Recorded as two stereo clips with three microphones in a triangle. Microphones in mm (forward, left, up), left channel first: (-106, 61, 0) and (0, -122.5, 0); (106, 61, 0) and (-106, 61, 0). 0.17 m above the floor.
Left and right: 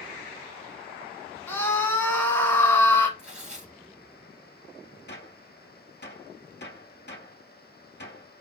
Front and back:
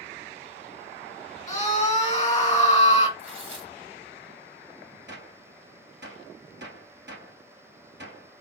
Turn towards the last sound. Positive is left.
turn(degrees=155)